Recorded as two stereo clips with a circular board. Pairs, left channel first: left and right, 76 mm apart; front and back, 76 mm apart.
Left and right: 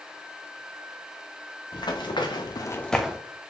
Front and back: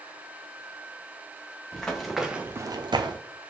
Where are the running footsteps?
80° left, 1.5 m; by 3.2 s 170° right, 0.8 m.